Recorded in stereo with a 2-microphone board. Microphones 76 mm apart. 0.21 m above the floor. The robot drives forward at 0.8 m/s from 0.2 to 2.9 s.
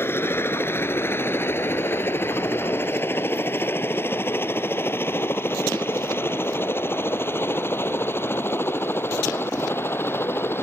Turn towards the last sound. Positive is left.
turn(degrees=30)  # may be behind; listen again after turning